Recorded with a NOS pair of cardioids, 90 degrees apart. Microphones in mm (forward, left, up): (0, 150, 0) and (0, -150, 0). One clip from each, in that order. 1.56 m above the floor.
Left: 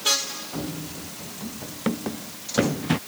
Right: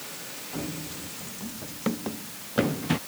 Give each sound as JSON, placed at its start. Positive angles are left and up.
{"t": 0.5, "sound": "running footsteps", "azimuth_deg": 20}